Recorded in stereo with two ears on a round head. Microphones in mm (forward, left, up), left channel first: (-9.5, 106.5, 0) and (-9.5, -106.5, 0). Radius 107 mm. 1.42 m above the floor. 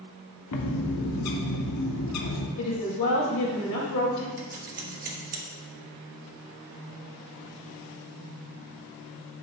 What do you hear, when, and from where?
0.5 s a bird: 75° left (ahead or behind), 1.0 m
2.6 s a woman speaking: 85° left, 2.5 m
4.4 s scissors: 35° right (ahead or behind), 1.2 m